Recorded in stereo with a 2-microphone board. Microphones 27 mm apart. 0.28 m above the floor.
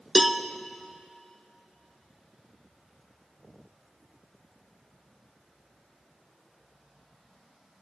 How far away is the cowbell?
About 0.5 m.